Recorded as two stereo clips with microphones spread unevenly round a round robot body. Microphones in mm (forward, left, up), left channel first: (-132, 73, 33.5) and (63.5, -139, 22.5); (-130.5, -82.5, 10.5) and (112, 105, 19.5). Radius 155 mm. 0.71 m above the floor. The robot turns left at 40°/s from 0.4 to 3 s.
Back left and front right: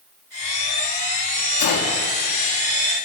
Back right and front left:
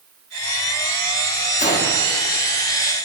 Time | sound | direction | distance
1.6 | a gunshot | 155° left | 1.4 m